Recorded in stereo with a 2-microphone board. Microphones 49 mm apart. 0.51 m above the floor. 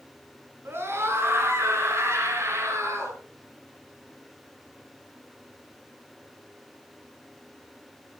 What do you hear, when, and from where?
0.7 s a scream: 45° right (ahead or behind), 6 m; by 3.2 s 55° right (ahead or behind), 8 m